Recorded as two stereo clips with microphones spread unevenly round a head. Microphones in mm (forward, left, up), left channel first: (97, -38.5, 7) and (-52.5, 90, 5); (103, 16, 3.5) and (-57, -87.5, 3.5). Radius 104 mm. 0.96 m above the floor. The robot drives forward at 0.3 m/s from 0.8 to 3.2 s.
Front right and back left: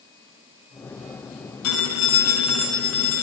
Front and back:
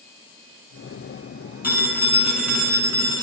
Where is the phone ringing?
65° right, 7.5 m; by 3.2 s 70° right, 7 m.